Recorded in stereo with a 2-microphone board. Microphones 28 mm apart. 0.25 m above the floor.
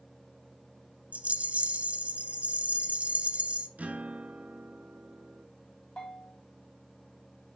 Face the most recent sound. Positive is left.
turn(degrees=40)  # may be behind; listen again after turning